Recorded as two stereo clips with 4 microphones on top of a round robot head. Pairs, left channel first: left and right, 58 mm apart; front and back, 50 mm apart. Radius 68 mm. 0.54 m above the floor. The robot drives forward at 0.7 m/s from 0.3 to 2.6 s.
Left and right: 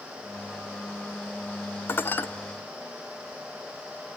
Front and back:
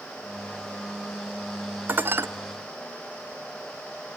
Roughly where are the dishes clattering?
Behind left.